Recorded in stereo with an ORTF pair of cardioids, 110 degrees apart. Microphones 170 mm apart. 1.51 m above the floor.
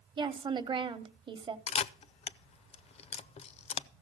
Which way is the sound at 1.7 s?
40° left.